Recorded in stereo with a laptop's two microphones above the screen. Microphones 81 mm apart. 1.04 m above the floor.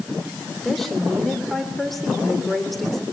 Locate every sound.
0.6 s a woman speaking: centre (ahead or behind), 3 m